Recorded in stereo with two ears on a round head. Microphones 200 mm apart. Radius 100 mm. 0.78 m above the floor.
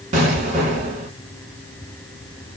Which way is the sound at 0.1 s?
35° right (ahead or behind).